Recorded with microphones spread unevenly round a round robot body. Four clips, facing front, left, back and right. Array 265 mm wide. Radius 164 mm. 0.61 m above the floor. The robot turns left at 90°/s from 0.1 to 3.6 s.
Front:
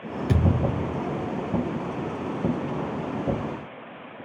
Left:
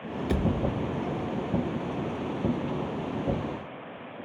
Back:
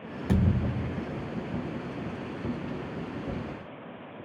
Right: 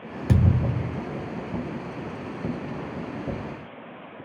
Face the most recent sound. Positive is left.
turn(degrees=-30)